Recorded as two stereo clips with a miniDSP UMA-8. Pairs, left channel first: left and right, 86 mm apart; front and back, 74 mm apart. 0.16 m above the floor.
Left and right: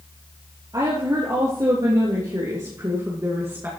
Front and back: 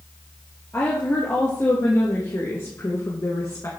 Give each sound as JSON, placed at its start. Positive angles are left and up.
{"t": 0.7, "sound": "a woman speaking", "azimuth_deg": -55, "distance_m": 3.5}